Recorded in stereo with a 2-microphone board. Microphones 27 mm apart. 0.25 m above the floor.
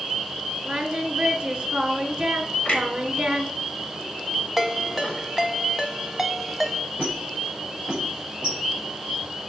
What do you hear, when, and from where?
0.7 s singing: 35° right (ahead or behind), 1.3 m
2.6 s a clunk: 45° left (ahead or behind), 2.5 m
4.6 s a ringtone: 5° right (ahead or behind), 0.9 m
7.0 s a squeak: 25° right (ahead or behind), 4.5 m